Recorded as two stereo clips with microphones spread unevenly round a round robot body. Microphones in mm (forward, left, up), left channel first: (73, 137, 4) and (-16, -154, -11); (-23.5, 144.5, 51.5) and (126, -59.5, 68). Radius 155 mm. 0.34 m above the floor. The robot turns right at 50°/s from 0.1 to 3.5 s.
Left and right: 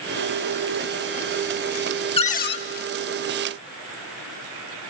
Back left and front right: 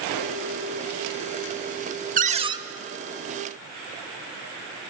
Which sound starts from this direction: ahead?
A cupboard door, at 2.2 s.